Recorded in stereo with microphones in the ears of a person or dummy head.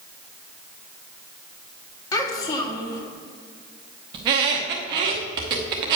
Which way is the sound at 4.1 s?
30° right (ahead or behind).